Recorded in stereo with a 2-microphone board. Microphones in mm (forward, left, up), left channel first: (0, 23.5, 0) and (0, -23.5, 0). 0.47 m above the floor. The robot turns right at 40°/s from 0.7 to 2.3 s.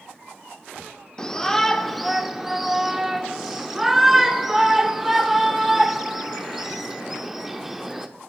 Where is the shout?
15° left (ahead or behind), 0.7 m; by 8.1 s 10° right (ahead or behind), 0.7 m.